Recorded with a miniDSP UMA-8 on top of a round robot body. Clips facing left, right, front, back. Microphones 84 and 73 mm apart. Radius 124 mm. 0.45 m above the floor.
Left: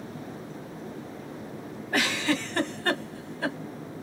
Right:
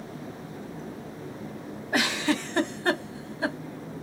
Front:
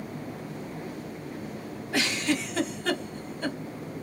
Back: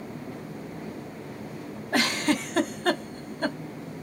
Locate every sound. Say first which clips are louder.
1.9 s a giggle: right 1 dB, back 3 dB; 160° right, 1.2 m